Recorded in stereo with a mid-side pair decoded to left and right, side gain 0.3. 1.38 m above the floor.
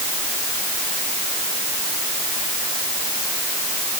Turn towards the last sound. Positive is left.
No sound to turn to.